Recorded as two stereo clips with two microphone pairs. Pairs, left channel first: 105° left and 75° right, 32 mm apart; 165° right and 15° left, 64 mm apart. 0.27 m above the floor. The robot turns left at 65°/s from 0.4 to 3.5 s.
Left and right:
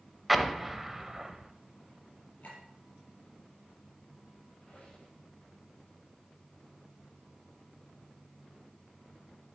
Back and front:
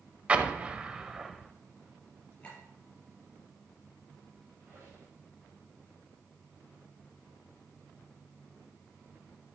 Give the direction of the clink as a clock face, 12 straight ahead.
8 o'clock.